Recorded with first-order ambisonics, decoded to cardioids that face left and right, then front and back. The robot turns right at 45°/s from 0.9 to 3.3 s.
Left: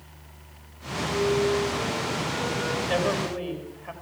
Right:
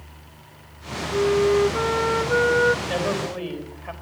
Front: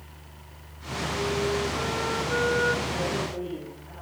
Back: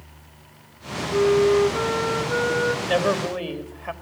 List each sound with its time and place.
1.1 s a flute: 155° right, 0.8 m; by 2.8 s 80° right, 0.8 m
2.9 s a man speaking: 170° left, 4 m; by 3.9 s 170° right, 4 m